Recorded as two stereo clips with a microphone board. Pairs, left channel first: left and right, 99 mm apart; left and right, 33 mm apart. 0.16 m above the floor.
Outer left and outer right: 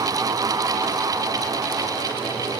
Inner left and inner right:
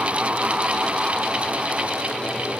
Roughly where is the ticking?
No ticking in this recording.